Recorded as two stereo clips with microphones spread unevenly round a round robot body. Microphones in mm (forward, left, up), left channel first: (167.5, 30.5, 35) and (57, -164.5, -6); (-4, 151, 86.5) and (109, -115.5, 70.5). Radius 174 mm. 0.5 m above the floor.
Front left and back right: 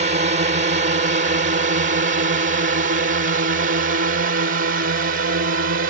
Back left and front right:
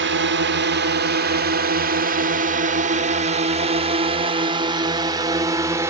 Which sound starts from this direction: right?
A drone, at 0.0 s.